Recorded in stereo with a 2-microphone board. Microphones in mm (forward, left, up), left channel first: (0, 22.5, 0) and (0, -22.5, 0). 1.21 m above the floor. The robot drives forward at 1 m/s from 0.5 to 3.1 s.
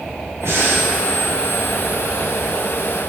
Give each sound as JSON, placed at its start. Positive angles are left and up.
{"t": 0.4, "sound": "breathing", "side_deg": -80, "distance_m": 2.5}